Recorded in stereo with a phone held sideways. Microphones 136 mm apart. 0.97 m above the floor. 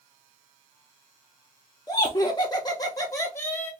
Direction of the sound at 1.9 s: 25° left (ahead or behind).